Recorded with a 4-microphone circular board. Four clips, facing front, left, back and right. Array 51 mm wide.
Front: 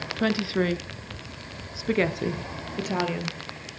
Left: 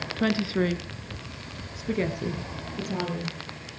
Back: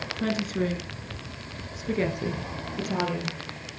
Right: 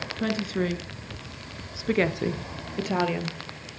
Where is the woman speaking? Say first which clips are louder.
Left 3 dB, front 3 dB; 40° left, 1.4 m; by 3.4 s 75° right, 2 m.